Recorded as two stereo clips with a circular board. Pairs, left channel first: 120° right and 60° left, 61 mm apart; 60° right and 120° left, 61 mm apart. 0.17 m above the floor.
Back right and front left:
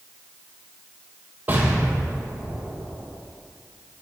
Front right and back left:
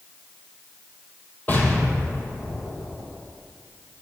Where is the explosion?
Straight ahead, 1.2 m.